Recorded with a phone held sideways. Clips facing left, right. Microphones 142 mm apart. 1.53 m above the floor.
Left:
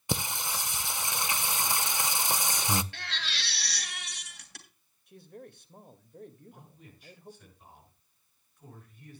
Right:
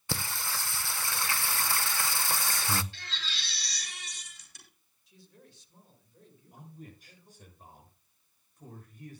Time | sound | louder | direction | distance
0.1 | singing | left 3 dB | 20° left (ahead or behind) | 0.5 m
2.9 | a baby crying | left 4 dB | 65° left (ahead or behind) | 2.5 m
5.1 | a man speaking | left 9 dB | 55° left (ahead or behind) | 1.8 m
6.5 | a man speaking | right 5 dB | 45° right (ahead or behind) | 6.5 m